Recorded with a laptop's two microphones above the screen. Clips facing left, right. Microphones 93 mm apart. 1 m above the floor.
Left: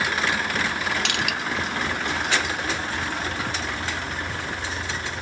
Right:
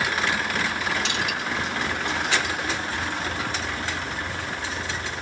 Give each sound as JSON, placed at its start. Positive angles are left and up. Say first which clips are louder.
{"t": 1.1, "sound": "crushing", "louder": "left 1 dB", "side_deg": 70, "distance_m": 0.7}